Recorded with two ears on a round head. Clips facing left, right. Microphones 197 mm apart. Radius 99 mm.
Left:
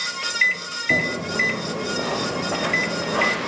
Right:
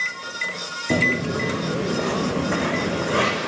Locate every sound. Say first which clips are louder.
0.9 s footsteps: right 4 dB; 20° right (ahead or behind), 1.3 m; by 3.4 s 30° right (ahead or behind), 3 m